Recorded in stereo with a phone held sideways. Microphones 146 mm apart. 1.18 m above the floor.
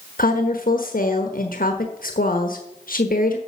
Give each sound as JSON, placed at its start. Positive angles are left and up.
{"t": 0.2, "sound": "a woman speaking", "side_deg": 80, "distance_m": 1.1}